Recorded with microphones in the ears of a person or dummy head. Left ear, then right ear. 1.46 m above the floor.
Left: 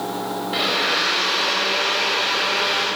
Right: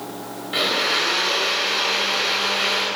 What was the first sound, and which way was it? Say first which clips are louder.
A blender: right 1 dB; 10° right (ahead or behind).